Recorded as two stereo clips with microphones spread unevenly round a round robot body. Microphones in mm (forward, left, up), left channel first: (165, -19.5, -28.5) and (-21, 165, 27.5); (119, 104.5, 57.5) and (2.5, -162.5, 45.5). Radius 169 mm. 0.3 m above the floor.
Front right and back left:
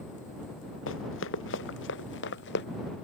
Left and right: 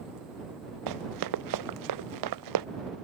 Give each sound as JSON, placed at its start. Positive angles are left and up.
{"t": 0.9, "sound": "running footsteps", "azimuth_deg": -100}